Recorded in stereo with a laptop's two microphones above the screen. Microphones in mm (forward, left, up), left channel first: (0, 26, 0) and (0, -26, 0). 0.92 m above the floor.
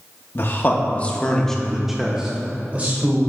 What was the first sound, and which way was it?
A man speaking, 45° left (ahead or behind).